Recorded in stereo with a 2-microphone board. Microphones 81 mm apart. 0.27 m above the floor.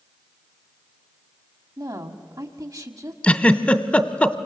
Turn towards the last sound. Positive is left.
turn(degrees=15)  # may be behind; listen again after turning